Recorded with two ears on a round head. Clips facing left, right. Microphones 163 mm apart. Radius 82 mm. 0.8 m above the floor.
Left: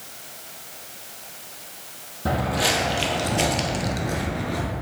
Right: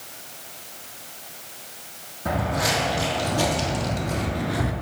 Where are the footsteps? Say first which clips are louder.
Left 1 dB; 35° left (ahead or behind), 1.9 m; by 4.7 s 15° right (ahead or behind), 0.7 m.